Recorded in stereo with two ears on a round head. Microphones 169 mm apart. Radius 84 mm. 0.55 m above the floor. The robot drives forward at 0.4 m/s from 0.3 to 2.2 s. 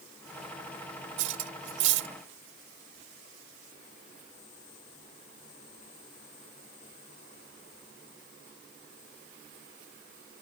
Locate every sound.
1.2 s cutlery clinking: 75° right (ahead or behind); by 2.1 s 70° right (ahead or behind)